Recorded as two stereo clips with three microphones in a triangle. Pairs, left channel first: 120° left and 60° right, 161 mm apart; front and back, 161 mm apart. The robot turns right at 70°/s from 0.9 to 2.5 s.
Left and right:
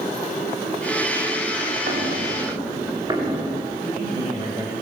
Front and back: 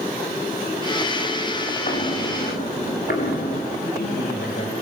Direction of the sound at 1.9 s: 40° right.